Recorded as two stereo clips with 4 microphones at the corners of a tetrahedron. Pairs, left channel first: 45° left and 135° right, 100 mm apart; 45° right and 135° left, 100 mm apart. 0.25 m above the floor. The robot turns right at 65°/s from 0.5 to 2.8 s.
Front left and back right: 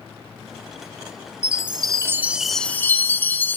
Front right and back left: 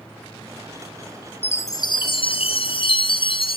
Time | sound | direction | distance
1.4 | a chime | 115° right | 1.4 m